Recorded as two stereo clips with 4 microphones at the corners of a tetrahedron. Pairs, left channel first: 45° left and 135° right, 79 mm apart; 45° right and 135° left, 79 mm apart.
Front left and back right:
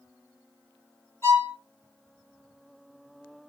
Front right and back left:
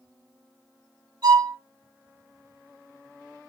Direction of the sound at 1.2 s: 110° left.